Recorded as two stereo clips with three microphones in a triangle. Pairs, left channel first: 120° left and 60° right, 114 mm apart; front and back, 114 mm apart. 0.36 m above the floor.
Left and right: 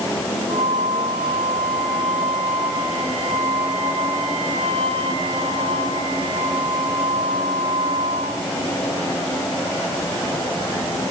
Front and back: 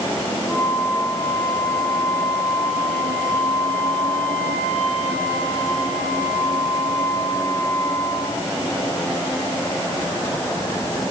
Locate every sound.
0.5 s a flute: 80° right, 5.5 m